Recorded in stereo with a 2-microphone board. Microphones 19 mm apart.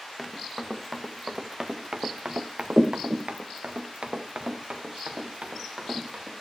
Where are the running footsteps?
Centre (ahead or behind), 1.4 m; by 6.3 s 70° right (ahead or behind), 2.5 m.